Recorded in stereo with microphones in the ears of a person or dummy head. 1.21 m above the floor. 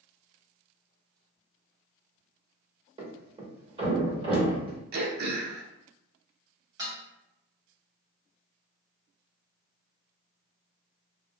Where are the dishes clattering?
25° right (ahead or behind), 0.9 m.